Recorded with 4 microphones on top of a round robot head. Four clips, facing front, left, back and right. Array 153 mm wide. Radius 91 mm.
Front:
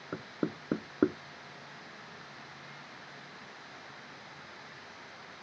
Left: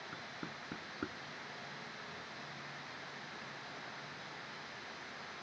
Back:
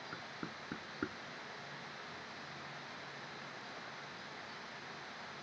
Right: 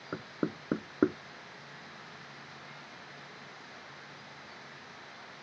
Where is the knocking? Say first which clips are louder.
Right 16 dB, front 15 dB; 50° right.